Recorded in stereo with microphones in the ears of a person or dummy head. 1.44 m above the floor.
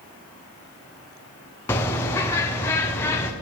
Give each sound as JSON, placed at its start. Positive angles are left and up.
{"t": 1.7, "sound": "a bird", "side_deg": 10, "distance_m": 0.6}